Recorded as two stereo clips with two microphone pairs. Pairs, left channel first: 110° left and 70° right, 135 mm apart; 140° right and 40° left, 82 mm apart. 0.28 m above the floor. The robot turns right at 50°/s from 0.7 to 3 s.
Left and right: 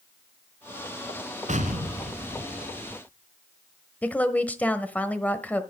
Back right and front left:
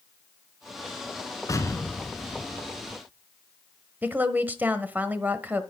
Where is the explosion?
95° right, 1.5 m; by 3.0 s 20° right, 1.5 m.